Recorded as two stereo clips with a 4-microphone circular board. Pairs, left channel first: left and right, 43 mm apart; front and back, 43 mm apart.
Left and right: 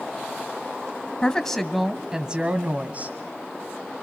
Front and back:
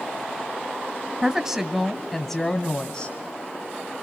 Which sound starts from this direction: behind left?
A woman speaking, at 1.2 s.